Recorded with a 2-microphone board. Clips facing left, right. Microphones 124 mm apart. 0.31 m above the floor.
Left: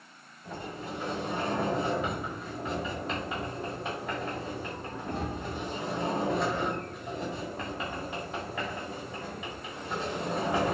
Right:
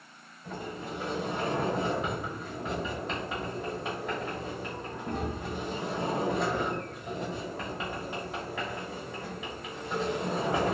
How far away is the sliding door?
About 1.5 m.